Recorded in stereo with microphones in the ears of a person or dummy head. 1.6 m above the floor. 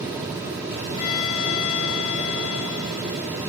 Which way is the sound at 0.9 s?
55° left (ahead or behind).